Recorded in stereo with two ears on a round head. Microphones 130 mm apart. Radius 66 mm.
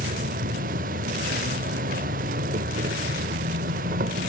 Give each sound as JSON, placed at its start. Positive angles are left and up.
{"t": 0.0, "sound": "an insect", "side_deg": -65, "distance_m": 0.7}